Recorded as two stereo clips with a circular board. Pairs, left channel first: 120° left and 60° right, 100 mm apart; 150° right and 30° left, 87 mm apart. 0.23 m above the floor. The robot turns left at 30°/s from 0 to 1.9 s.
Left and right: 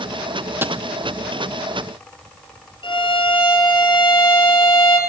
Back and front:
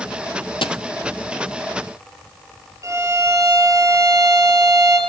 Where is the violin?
85° left, 5 m.